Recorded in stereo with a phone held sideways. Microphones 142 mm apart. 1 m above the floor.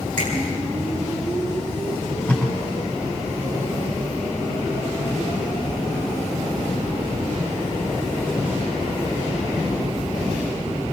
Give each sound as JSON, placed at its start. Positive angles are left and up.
{"t": 0.2, "sound": "a finger snap", "side_deg": -85, "distance_m": 10.0}
{"t": 1.9, "sound": "tape being pulled", "side_deg": 10, "distance_m": 7.5}